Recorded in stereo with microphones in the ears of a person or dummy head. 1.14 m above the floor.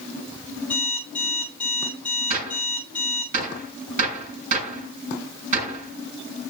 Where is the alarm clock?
10° left (ahead or behind), 7 m.